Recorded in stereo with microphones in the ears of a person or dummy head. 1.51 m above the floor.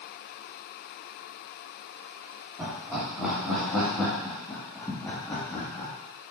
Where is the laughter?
10° right (ahead or behind), 3 m; by 5.9 s 25° left (ahead or behind), 2.0 m.